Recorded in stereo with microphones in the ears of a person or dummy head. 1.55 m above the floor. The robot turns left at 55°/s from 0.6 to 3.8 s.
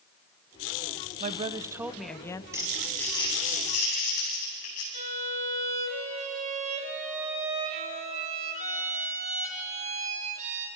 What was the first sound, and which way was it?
A woman speaking, 130° right.